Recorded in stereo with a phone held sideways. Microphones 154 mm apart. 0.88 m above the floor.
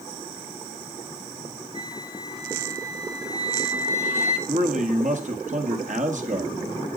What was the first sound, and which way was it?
A flute, 40° left (ahead or behind).